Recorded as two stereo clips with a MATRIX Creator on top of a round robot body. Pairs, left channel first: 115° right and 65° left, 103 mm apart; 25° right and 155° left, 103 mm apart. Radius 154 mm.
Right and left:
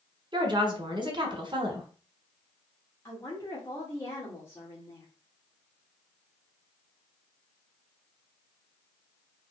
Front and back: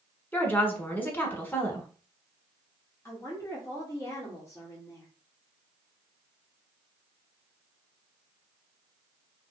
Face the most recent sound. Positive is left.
turn(degrees=-65)